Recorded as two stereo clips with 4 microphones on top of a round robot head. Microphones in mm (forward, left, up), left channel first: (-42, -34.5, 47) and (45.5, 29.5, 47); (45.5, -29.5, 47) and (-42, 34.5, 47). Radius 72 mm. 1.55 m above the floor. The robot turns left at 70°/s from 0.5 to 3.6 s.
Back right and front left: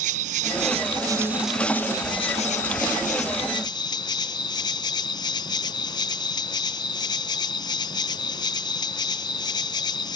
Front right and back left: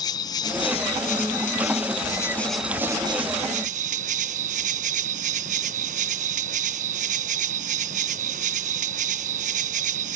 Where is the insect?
20° left; by 10.2 s 160° left.